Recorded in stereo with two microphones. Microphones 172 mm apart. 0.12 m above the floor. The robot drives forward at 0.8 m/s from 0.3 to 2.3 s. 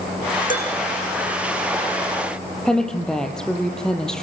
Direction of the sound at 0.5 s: 50° left (ahead or behind).